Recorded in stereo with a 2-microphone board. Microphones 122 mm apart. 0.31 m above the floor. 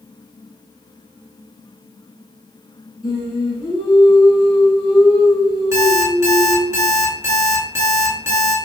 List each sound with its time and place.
3.0 s singing: 35° left (ahead or behind), 1.3 m
5.7 s an alarm clock: 25° right (ahead or behind), 1.4 m